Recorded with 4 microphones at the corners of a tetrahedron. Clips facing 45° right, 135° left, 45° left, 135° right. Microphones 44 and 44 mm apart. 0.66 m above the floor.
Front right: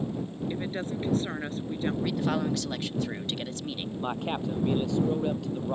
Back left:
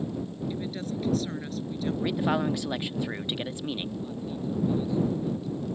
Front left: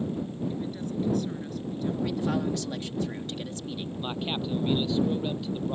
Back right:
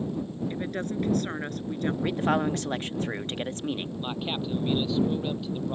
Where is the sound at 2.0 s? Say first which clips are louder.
Back left 4 dB, back right 4 dB; 160° right.